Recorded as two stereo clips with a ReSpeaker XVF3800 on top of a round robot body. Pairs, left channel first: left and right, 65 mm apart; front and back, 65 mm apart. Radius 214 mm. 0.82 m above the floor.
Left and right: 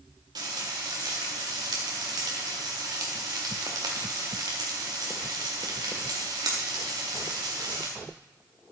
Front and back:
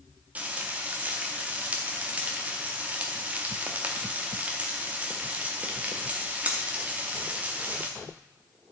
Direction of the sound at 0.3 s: 110° right.